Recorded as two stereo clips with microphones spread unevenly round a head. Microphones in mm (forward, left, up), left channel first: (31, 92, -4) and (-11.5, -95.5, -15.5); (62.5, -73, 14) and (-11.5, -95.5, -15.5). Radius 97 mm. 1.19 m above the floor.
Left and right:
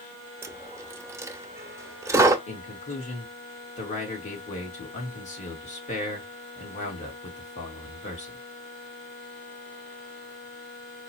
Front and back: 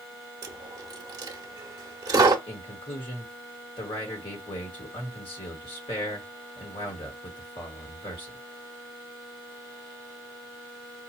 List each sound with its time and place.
0.4 s a dropped coin: 170° right, 0.6 m
2.5 s a man speaking: 25° left, 1.6 m